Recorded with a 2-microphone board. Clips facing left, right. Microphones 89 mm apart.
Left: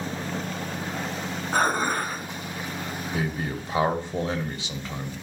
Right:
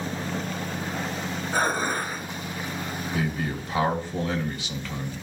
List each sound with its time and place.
1.5 s dishes clattering: 65° left (ahead or behind), 2.5 m
3.1 s a man speaking: 25° left (ahead or behind), 1.3 m